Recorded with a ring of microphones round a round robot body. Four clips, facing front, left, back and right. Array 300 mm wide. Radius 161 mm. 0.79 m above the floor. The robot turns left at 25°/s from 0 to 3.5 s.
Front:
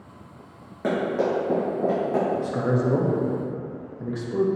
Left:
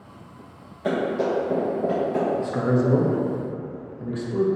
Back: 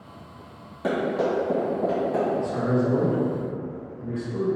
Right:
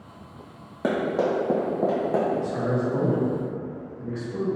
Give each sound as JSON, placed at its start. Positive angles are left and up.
{"t": 0.8, "sound": "running footsteps", "azimuth_deg": -75, "distance_m": 1.6}
{"t": 2.4, "sound": "a man speaking", "azimuth_deg": 50, "distance_m": 0.9}